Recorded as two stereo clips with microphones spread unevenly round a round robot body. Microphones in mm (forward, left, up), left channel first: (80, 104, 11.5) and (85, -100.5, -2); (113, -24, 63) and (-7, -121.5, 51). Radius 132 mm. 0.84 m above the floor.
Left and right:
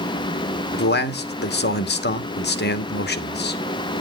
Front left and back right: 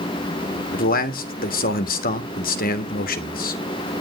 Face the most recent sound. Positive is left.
turn(degrees=60)